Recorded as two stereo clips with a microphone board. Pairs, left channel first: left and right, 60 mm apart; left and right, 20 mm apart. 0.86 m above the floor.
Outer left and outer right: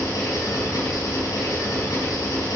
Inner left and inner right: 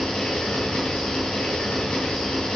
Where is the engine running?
80° left, 5 m.